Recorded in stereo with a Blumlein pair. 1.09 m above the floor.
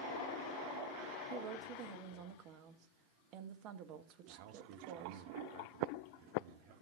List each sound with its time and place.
1.3 s a woman speaking: 40° right, 1.1 m
4.3 s a man speaking: 50° right, 0.8 m